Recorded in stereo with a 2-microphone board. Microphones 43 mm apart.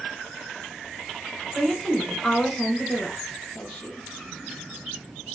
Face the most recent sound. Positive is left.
turn(degrees=35)  # may be behind; listen again after turning